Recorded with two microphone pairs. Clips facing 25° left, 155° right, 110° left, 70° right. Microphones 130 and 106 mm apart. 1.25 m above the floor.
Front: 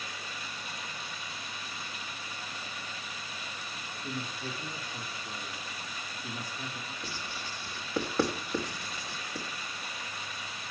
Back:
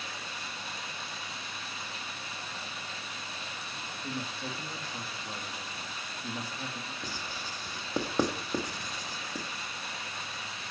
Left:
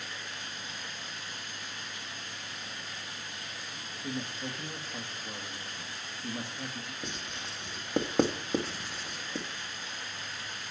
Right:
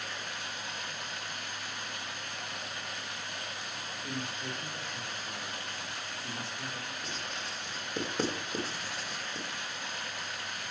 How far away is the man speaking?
About 2.5 m.